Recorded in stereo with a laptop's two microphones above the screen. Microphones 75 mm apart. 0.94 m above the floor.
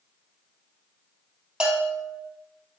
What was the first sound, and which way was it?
A bell, 5° right (ahead or behind).